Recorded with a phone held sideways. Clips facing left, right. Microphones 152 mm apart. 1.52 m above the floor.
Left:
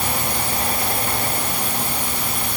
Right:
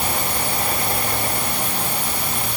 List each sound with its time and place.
Only background noise.